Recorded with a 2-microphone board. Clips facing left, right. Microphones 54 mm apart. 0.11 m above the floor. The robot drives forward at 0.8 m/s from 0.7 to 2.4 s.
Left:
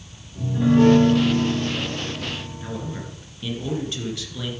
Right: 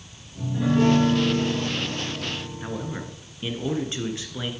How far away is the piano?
About 4 m.